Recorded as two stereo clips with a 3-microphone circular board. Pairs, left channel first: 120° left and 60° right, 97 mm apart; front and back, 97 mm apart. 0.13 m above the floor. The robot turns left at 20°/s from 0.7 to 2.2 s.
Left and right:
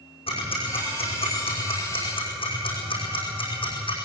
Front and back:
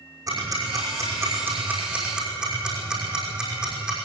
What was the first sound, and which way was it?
Ticking, 130° left.